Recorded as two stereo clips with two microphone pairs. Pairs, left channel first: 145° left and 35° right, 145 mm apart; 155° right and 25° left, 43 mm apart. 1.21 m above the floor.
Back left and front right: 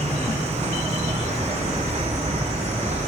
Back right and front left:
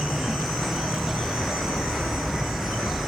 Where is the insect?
60° right, 0.9 m.